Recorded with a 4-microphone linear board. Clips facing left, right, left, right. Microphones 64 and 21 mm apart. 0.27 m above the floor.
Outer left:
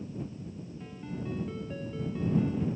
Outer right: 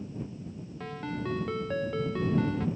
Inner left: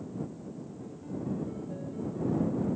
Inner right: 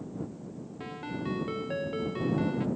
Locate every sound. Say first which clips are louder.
0.8 s a ringtone: outer right 6 dB, inner right 3 dB; 70° right (ahead or behind)